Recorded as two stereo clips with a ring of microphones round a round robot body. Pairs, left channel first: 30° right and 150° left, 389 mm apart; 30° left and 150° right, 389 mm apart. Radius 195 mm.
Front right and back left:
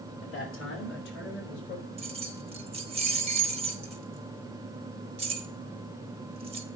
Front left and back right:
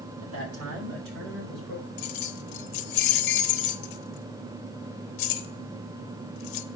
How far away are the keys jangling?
About 0.9 m.